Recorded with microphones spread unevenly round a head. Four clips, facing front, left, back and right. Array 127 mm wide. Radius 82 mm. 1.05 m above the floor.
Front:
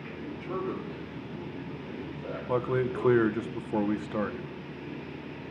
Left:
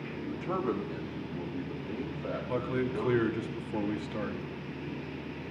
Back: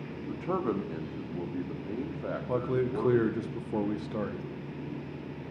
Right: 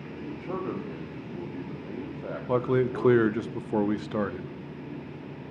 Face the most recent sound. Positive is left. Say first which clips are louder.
# right 8 dB, front 2 dB
turn(degrees=-40)